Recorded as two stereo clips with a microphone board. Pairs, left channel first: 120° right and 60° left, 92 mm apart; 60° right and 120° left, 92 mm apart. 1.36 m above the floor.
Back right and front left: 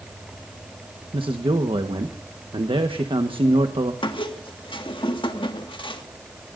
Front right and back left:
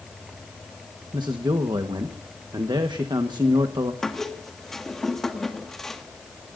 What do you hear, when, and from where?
1.1 s a man speaking: 80° left, 1.2 m
4.0 s a squeak: 145° right, 1.6 m